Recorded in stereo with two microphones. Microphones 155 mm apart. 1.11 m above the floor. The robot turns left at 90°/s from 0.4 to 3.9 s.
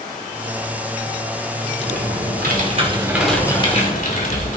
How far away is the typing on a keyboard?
About 2.5 m.